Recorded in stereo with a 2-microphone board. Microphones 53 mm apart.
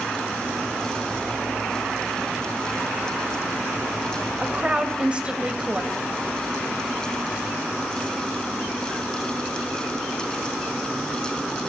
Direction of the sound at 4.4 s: 20° right (ahead or behind).